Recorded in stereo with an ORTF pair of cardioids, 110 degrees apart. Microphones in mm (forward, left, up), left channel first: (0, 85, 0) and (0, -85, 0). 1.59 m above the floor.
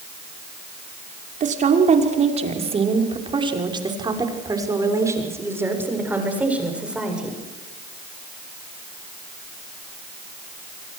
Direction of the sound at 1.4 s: 45° right.